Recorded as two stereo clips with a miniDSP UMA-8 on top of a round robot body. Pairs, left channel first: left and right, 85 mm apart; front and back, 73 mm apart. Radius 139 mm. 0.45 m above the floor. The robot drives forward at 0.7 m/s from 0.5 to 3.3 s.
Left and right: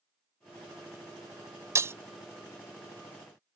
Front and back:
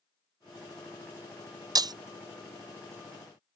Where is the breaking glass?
145° right; by 1.9 s 150° right.